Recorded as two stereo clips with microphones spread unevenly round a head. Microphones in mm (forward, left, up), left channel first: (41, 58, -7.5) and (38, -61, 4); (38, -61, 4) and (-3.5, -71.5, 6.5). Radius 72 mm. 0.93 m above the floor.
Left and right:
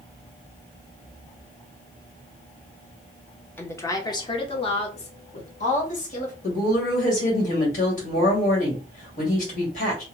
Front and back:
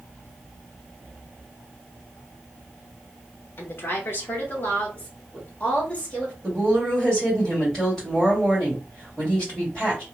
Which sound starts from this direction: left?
A woman speaking, at 6.4 s.